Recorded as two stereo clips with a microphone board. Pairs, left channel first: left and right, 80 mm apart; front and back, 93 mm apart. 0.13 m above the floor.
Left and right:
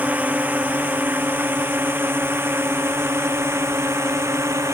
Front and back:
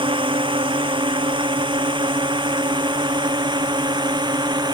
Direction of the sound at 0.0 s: 160° right.